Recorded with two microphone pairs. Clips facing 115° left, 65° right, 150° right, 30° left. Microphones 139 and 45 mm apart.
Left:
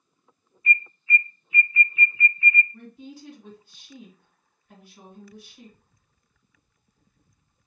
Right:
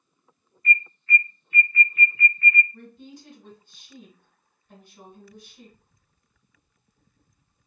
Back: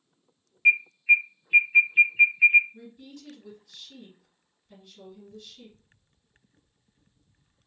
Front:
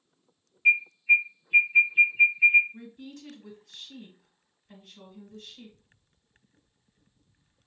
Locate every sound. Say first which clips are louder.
0.7 s an alarm: right 1 dB, back 1 dB; 165° right, 1.3 m
2.7 s a woman speaking: left 2 dB, front 2 dB; 30° left, 2 m